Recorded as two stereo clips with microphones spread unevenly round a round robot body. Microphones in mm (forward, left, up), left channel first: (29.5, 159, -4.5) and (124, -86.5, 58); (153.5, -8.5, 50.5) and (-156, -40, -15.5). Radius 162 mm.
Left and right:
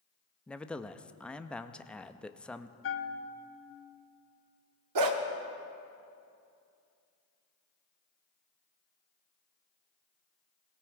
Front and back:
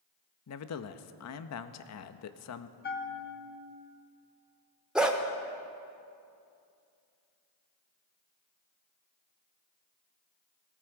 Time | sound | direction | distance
0.5 | a man speaking | 40° left | 0.7 m
2.8 | a bell | 70° left | 1.0 m
5.0 | a dog barking | 85° right | 0.9 m